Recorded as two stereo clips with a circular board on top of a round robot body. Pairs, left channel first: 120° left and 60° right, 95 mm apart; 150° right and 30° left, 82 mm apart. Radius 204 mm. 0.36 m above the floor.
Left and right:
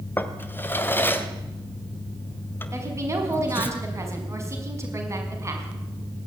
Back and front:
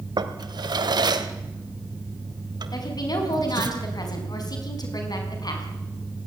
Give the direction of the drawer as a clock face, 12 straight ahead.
10 o'clock.